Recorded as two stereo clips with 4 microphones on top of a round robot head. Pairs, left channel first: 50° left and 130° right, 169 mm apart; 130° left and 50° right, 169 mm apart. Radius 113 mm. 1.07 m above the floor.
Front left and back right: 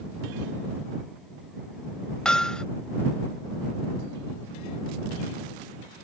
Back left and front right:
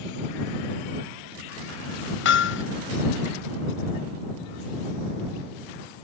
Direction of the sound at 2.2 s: 135° left.